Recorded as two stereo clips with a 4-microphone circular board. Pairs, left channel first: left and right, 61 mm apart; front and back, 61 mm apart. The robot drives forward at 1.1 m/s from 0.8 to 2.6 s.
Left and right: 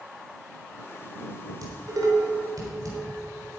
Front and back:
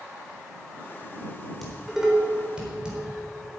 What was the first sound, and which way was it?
Dishes clattering, 90° right.